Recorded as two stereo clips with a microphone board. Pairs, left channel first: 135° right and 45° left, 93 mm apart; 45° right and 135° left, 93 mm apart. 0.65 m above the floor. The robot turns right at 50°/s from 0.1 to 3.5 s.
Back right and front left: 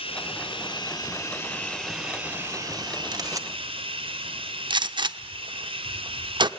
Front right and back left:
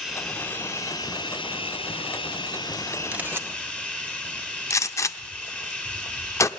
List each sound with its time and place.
0.0 s running water: 140° right, 3 m; by 6.6 s 30° left, 3 m
3.1 s a camera shutter: 65° left, 1.2 m; by 3.5 s 85° left, 1.2 m
4.7 s a gunshot: 10° left, 0.7 m